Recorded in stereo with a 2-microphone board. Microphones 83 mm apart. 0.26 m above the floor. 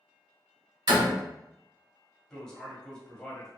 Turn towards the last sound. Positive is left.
turn(degrees=10)  # may be behind; listen again after turning